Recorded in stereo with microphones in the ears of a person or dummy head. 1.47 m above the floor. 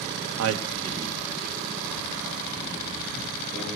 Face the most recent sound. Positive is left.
turn(degrees=15)  # may be behind; listen again after turning